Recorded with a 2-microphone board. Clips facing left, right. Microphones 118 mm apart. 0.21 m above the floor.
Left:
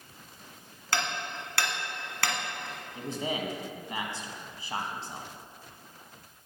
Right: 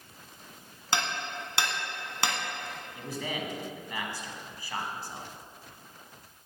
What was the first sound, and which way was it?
Hammering, 20° right (ahead or behind).